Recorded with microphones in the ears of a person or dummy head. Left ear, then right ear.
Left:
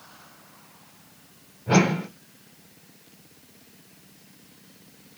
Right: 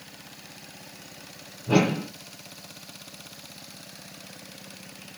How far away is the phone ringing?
I don't hear a phone ringing.